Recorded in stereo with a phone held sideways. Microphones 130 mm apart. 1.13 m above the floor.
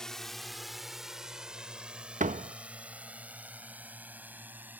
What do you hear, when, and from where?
0.0 s a drone: 5° left (ahead or behind); by 4.8 s 15° right (ahead or behind)
2.2 s a door slam: 70° right (ahead or behind)